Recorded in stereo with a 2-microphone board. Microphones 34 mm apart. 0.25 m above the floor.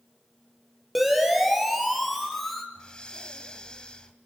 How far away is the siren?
About 6 m.